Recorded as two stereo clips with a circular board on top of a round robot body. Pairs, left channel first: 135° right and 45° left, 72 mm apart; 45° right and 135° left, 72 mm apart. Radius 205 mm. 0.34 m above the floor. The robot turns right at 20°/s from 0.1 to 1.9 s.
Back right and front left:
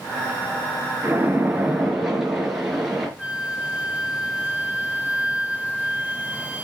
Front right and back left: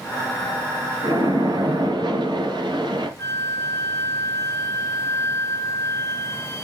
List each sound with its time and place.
1.0 s a splash: 115° left, 4 m; by 3.1 s 130° left, 4 m
3.2 s a flute: 20° right, 1.8 m